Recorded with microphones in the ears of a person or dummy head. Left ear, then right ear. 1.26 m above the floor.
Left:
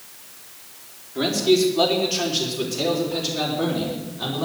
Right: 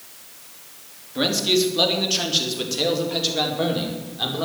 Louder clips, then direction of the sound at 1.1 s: Left 1 dB; 25° right (ahead or behind).